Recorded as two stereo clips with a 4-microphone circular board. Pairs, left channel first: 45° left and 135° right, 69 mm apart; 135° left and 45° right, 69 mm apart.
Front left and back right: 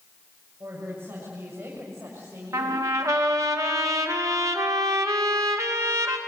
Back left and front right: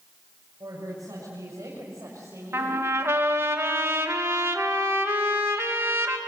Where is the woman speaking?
80° right, 6.5 m; by 2.8 s 95° right, 7 m.